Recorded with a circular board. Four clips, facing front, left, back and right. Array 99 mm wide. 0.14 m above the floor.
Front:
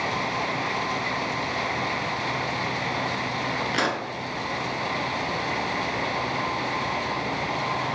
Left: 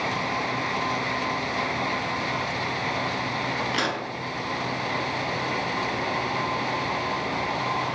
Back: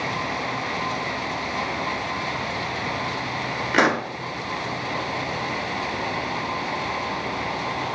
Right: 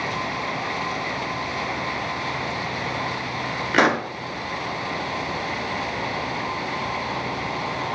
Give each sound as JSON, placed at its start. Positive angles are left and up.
{"t": 3.7, "sound": "a pop", "azimuth_deg": -130, "distance_m": 0.6}